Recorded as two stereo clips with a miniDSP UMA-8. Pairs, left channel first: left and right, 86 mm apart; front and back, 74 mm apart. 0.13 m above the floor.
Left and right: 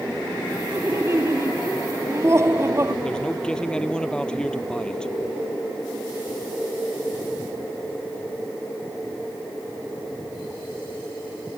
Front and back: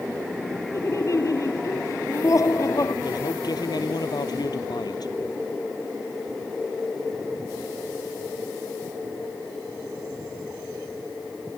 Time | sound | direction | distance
0.7 | laughter | 35° right | ?
3.0 | a man speaking | 10° left | ?